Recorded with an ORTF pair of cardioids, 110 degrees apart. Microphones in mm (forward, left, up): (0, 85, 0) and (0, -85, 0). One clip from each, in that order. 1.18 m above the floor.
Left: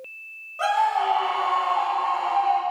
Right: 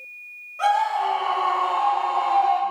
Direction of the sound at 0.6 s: 5° left.